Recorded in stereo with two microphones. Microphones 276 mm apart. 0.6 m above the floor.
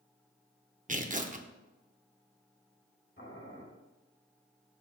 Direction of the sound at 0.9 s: 30° right (ahead or behind).